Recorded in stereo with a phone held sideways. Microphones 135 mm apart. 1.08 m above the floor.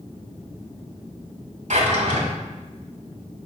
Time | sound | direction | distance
1.7 | a drawer | 60° right (ahead or behind) | 2.5 m